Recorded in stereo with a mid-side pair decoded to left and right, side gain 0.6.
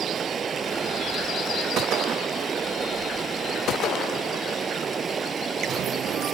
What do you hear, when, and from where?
0.0 s running water: 30° right